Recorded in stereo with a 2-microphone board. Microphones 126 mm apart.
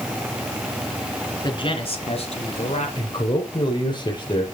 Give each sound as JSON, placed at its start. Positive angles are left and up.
{"t": 1.4, "sound": "a man speaking", "side_deg": 35, "distance_m": 2.0}
{"t": 3.0, "sound": "a man speaking", "side_deg": 35, "distance_m": 4.0}